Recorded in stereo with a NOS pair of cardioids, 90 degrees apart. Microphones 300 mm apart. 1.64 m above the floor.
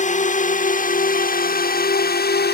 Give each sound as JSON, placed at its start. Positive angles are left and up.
{"t": 0.0, "sound": "a drone", "azimuth_deg": 25}